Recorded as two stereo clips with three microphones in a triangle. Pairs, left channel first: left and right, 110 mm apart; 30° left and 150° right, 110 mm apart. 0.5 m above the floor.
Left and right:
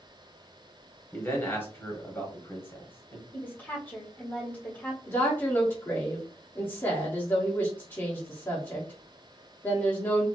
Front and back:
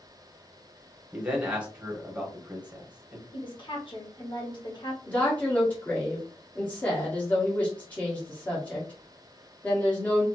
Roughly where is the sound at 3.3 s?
Ahead.